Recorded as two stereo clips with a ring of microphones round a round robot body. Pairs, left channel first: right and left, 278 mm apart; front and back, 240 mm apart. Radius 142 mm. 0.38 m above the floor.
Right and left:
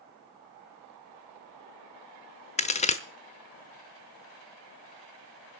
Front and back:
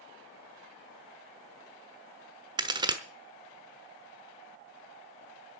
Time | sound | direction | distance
2.6 | a crack | 130° right | 1.0 m